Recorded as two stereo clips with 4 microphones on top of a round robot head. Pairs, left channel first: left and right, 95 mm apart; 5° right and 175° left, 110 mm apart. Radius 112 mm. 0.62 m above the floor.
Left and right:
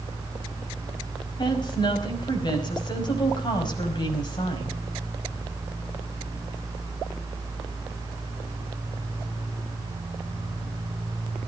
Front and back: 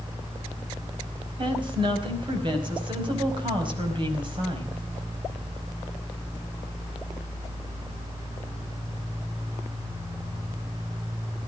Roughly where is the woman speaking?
Behind left.